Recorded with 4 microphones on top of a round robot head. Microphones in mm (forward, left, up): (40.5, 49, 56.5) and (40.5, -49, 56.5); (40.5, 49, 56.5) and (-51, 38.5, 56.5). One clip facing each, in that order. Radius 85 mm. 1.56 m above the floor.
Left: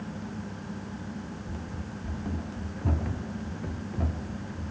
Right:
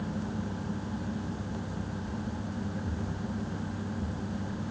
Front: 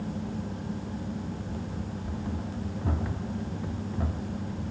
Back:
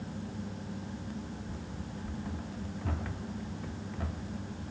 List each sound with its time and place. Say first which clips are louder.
1.5 s running footsteps: right 2 dB, front 6 dB; 80° left; by 4.7 s 70° left